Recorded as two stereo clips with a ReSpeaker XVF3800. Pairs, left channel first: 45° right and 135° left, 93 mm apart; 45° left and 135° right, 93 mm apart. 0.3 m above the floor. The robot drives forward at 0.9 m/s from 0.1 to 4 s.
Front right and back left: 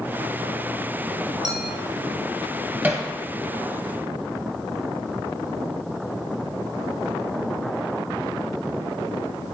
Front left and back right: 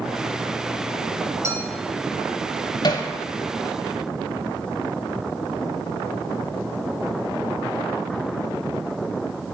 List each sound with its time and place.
1.4 s a clink: 170° left, 1.7 m
2.8 s hammering: 65° left, 1.1 m; by 3.1 s 80° left, 1.0 m